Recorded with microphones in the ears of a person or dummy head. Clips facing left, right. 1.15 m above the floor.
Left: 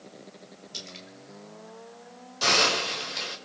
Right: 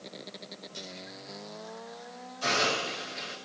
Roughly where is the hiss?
Left.